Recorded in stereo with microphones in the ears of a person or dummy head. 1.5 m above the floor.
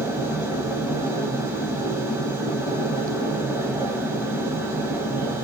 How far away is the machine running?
About 2 m.